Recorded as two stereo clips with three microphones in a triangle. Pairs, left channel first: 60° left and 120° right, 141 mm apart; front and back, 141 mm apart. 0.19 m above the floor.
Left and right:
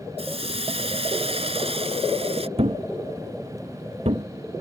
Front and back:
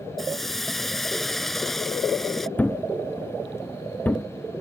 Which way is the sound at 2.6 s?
80° right.